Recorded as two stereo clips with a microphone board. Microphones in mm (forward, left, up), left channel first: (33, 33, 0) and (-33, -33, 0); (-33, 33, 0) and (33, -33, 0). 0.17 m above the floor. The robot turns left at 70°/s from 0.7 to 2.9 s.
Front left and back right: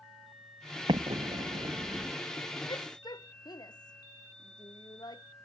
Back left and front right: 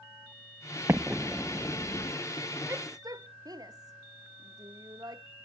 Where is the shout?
20° left; by 5.2 s 5° left.